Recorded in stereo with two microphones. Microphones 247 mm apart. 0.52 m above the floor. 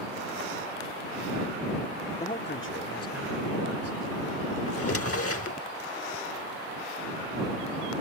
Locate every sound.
2.2 s a man speaking: 25° left (ahead or behind); by 4.6 s 80° left
4.7 s a drawer: 65° left (ahead or behind)